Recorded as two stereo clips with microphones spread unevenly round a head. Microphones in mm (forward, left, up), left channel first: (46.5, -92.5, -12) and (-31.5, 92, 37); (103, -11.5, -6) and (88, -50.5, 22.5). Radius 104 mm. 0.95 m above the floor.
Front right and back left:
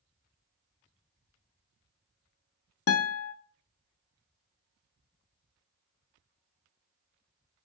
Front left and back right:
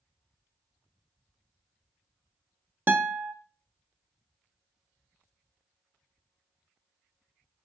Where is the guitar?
65° right, 1.1 m.